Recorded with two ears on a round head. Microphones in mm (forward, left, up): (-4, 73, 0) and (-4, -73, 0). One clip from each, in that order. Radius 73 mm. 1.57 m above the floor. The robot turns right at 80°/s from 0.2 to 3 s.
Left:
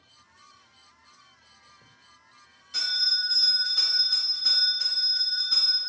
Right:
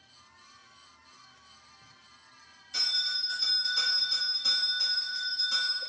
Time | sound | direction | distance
2.7 | a bell | centre (ahead or behind) | 1.7 m